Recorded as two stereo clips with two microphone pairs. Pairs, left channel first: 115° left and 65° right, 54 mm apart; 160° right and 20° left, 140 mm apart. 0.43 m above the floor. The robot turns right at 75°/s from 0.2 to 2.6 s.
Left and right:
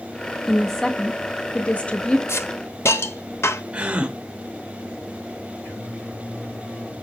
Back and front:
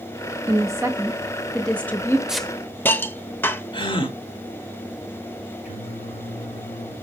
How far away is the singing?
About 6 m.